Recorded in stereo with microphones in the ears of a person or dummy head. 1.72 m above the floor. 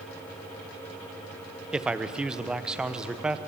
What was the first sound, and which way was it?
A man speaking, 5° right (ahead or behind).